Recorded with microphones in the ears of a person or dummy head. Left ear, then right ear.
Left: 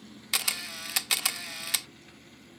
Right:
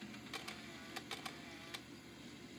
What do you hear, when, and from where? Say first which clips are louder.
0.3 s a camera shutter: left 20 dB; 35° left (ahead or behind)